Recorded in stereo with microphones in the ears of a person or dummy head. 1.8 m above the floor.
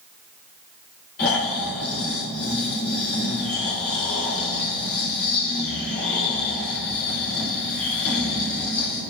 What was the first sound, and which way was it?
Snoring, 60° left (ahead or behind).